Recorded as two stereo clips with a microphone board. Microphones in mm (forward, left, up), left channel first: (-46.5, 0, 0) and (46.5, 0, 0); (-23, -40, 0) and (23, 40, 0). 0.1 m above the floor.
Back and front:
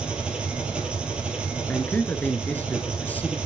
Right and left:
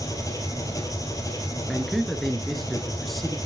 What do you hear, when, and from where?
0.0 s an engine running: 75° right, 2 m
1.7 s a man speaking: 155° left, 1.2 m